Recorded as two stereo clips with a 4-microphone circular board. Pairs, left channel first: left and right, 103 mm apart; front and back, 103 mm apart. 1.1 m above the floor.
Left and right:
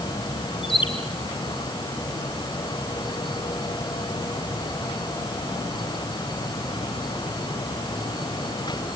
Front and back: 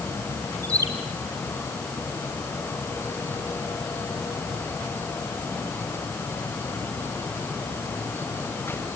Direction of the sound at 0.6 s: 125° left.